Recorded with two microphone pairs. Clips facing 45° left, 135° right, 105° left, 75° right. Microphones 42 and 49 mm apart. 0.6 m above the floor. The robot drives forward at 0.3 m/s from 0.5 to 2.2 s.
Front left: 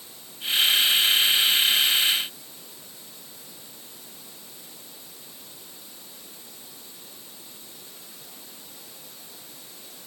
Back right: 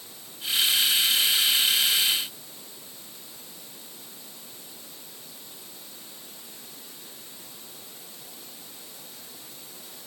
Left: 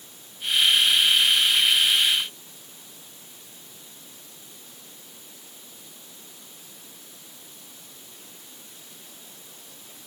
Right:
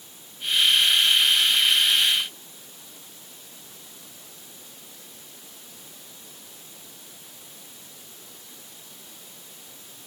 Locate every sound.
Only background noise.